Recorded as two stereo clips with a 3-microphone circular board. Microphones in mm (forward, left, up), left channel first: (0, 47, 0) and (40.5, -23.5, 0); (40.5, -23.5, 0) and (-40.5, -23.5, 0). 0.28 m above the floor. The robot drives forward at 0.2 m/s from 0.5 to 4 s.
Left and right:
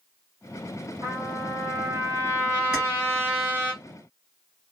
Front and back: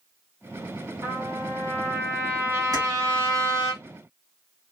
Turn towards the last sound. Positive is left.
turn(degrees=-140)